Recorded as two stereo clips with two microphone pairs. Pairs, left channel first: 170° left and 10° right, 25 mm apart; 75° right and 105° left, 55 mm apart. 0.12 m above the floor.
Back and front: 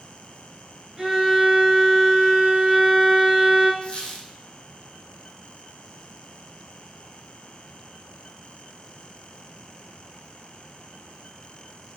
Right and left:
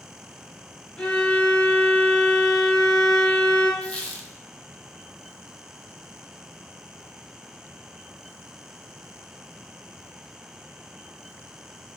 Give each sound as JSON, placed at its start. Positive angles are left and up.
{"t": 1.0, "sound": "a violin", "azimuth_deg": -40, "distance_m": 0.6}
{"t": 3.8, "sound": "a squeak", "azimuth_deg": -140, "distance_m": 0.6}